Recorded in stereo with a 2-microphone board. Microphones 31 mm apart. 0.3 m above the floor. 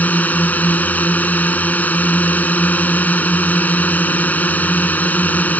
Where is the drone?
65° left (ahead or behind).